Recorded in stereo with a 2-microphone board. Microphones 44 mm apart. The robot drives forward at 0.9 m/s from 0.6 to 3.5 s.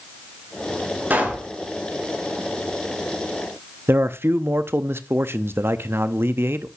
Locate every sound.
1.1 s a pop: 45° right (ahead or behind), 7 m
3.9 s a man speaking: 65° right (ahead or behind), 0.7 m